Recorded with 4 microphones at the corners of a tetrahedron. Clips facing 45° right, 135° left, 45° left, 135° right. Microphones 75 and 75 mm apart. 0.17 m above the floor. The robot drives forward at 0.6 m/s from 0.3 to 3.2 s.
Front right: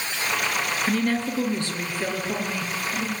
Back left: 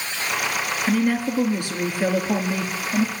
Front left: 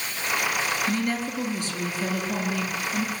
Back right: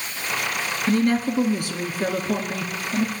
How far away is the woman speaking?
About 1.7 m.